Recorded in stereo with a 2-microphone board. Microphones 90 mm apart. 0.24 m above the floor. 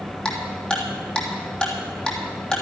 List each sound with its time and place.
0.2 s ticking: 5° left (ahead or behind), 2.5 m